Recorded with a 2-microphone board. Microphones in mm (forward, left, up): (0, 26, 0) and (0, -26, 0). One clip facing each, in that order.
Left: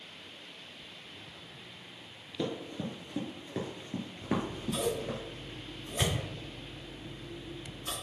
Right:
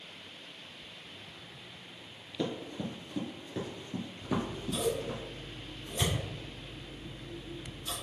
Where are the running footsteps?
Centre (ahead or behind), 1.8 m; by 5.2 s 50° left (ahead or behind), 2.5 m.